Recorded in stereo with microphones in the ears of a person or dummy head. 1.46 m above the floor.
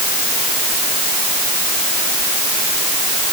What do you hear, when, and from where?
Only background noise.